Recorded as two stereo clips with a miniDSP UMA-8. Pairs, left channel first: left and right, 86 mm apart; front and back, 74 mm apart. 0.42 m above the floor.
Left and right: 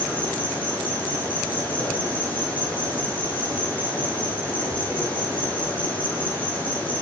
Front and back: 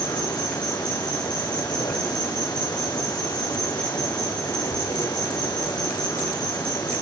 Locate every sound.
0.0 s an insect: 20° left, 8 m